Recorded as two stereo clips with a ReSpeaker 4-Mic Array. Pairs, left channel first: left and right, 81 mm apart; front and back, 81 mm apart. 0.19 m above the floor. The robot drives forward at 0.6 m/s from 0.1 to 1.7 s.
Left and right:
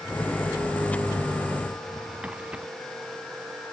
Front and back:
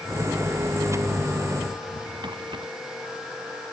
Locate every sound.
1.7 s a drawer: 165° right